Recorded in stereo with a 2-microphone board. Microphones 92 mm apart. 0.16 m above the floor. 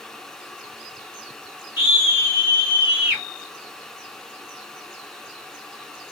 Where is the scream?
25° right (ahead or behind), 1.7 m; by 3.2 s 20° right (ahead or behind), 2.5 m.